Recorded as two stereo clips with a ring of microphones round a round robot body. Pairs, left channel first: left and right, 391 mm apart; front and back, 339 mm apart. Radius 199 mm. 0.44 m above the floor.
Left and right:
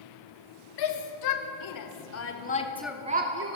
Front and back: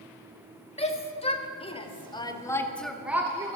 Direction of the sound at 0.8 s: 70° left.